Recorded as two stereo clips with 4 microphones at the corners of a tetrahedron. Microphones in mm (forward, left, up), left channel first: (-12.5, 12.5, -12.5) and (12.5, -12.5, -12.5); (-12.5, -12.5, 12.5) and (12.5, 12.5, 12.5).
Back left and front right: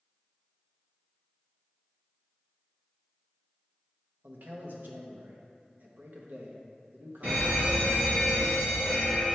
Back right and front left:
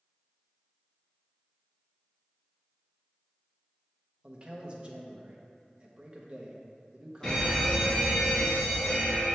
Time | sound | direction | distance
4.2 | a man speaking | 15° right | 1.0 m
7.2 | a fire alarm | 65° right | 1.9 m